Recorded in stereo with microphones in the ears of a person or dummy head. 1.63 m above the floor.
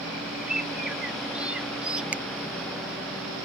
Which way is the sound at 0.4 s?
5° right (ahead or behind).